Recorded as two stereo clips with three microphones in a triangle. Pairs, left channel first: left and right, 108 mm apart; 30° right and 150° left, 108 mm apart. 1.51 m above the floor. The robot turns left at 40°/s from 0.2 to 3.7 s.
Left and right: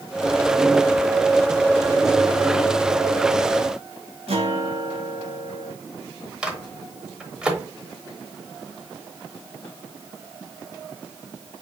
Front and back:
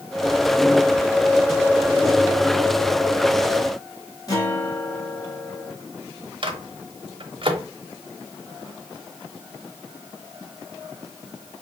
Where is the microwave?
170° right, 0.9 m.